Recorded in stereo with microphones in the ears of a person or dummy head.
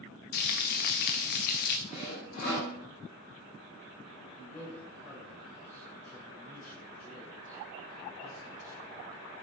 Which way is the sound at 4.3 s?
15° left (ahead or behind).